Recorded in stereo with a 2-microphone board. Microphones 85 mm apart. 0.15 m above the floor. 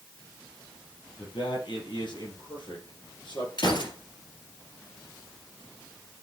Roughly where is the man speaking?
Left.